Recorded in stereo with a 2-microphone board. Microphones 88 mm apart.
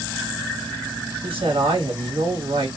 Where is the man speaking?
80° right, 3 m.